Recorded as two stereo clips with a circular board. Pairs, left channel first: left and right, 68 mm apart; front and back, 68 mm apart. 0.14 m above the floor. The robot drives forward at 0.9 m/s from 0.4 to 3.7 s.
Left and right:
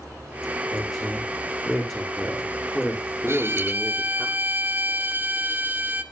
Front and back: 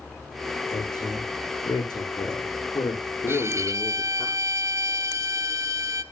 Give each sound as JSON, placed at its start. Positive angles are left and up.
{"t": 0.7, "sound": "a woman speaking", "azimuth_deg": 5, "distance_m": 8.5}
{"t": 3.3, "sound": "a violin", "azimuth_deg": -135, "distance_m": 0.9}